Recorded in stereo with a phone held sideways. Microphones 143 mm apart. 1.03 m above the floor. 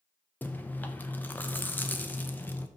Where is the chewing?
10° left (ahead or behind), 0.6 m.